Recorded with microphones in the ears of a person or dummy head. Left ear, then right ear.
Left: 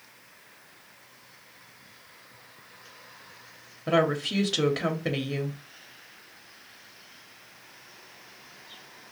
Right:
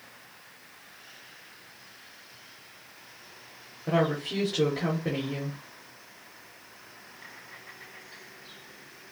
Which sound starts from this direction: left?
A woman speaking, at 3.9 s.